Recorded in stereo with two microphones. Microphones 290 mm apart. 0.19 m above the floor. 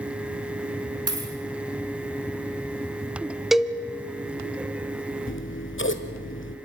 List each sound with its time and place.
1.1 s a dropped coin: 50° right (ahead or behind), 3 m
3.5 s a cowbell: centre (ahead or behind), 0.7 m
5.3 s scissors: 40° left (ahead or behind), 1.1 m